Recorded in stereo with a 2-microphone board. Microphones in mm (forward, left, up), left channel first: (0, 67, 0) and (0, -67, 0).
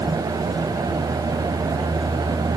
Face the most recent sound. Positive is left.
No sound to turn to.